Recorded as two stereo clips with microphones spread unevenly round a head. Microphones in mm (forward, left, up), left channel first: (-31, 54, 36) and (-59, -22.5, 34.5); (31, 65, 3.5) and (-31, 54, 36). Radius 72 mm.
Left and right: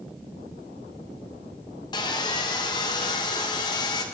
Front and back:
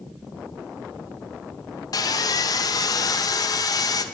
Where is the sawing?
20° left, 1.0 m.